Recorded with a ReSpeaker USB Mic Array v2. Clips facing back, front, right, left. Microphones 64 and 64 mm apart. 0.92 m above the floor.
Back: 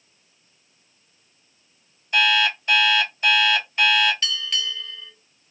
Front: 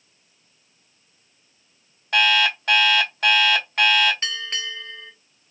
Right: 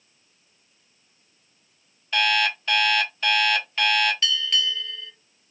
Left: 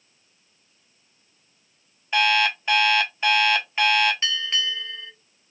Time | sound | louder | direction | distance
2.1 | an alarm clock | front 1 dB, left 2 dB | 20° left | 1.4 m
4.2 | a bell | back 1 dB, right 1 dB | 40° left | 0.5 m